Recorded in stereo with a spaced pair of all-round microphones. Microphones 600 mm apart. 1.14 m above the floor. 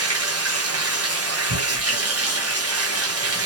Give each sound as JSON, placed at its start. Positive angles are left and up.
{"t": 0.0, "sound": "running water", "side_deg": -25, "distance_m": 0.9}
{"t": 1.5, "sound": "tearing paper", "side_deg": -50, "distance_m": 1.7}